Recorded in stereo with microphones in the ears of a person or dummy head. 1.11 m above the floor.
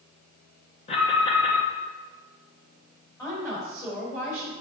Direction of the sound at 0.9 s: 35° left (ahead or behind).